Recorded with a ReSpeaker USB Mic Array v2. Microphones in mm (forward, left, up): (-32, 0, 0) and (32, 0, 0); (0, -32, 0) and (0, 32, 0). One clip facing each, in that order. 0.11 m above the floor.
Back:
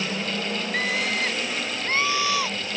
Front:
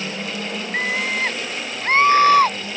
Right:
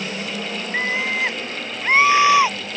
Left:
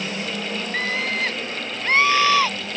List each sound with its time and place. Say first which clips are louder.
0.7 s a scream: front 4 dB, right 3 dB; 40° right; by 2.6 s 20° right